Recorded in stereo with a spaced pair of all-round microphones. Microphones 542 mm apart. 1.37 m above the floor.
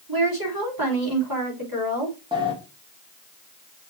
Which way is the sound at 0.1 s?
40° right (ahead or behind).